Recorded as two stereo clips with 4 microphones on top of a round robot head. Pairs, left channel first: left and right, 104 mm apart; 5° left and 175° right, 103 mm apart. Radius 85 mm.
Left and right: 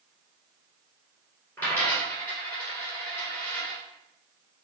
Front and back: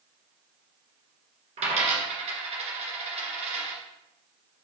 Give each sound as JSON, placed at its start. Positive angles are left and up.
{"t": 1.6, "sound": "a dropped coin", "azimuth_deg": 170, "distance_m": 2.0}